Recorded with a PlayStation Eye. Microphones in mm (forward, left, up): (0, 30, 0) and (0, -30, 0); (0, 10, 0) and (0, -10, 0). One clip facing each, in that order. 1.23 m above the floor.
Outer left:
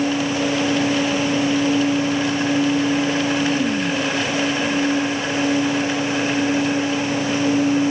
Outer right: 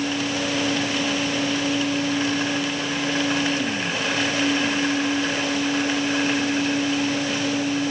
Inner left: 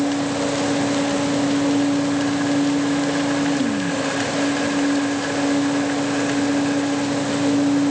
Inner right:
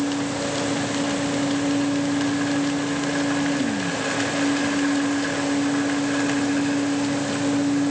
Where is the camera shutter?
I don't hear a camera shutter.